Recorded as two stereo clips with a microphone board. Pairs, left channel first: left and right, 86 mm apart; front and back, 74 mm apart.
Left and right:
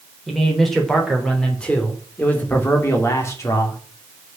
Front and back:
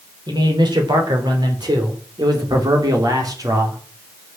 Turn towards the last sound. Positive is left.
turn(degrees=140)